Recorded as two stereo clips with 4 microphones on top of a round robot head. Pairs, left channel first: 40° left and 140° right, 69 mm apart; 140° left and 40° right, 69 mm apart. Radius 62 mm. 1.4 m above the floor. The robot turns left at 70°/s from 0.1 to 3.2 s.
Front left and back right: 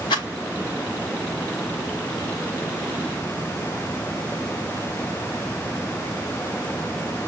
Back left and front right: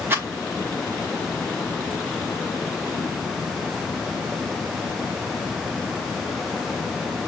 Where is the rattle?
25° left, 1.5 m; by 0.3 s 10° left, 1.5 m.